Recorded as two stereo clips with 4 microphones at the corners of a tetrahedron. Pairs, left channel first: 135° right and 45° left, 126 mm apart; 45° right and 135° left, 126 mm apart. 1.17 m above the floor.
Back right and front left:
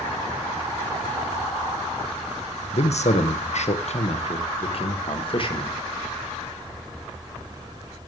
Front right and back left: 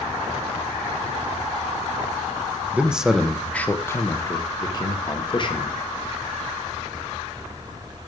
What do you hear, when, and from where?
2.7 s a man speaking: 150° right, 1.2 m; by 5.8 s 90° right, 2 m